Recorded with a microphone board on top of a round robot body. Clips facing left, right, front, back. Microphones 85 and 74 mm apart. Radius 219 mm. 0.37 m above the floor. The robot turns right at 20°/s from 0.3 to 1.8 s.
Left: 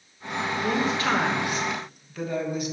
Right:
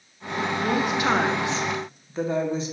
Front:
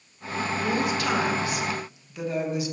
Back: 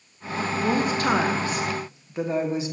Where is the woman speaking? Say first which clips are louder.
Right 2 dB, back 4 dB; 160° right, 1.3 m; by 2.7 s 135° right, 1.3 m.